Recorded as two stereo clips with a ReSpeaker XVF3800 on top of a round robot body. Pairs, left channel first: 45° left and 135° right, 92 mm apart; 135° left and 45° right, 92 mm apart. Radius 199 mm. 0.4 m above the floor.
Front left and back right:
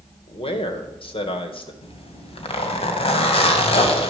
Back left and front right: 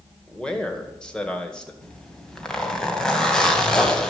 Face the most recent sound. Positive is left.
turn(degrees=50)